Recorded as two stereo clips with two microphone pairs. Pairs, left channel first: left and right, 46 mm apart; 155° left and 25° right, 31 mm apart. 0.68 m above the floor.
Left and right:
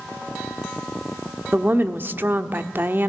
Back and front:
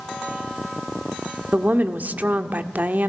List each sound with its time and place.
1.5 s a woman speaking: 50° right, 1.3 m